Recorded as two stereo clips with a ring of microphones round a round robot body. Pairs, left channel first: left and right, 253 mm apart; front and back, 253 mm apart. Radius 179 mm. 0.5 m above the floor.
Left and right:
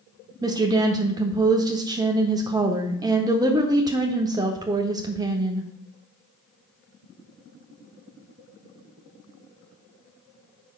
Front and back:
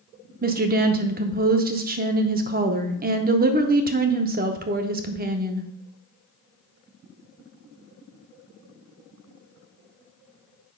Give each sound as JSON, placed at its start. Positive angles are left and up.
{"t": 0.4, "sound": "a woman speaking", "azimuth_deg": -160, "distance_m": 0.7}